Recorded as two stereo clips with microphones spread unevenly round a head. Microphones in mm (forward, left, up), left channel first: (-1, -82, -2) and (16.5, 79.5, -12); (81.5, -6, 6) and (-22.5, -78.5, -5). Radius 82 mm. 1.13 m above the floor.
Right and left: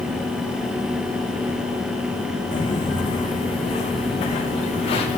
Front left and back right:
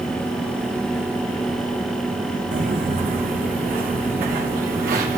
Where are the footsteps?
155° right, 3 m.